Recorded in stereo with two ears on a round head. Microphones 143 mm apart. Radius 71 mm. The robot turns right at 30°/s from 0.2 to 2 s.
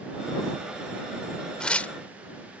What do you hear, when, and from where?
1.6 s tearing paper: 5° left (ahead or behind); by 1.9 s 10° left (ahead or behind)